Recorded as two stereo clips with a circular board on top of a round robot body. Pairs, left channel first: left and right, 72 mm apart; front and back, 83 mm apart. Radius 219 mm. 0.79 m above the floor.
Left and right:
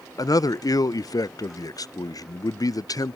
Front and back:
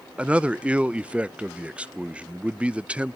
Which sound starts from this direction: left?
A man speaking, at 0.2 s.